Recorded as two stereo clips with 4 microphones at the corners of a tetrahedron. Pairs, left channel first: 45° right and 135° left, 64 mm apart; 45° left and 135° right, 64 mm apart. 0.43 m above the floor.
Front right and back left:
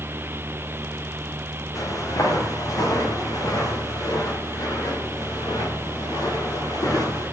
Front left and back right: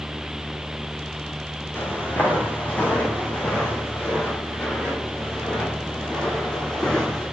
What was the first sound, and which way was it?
Footsteps, 15° right.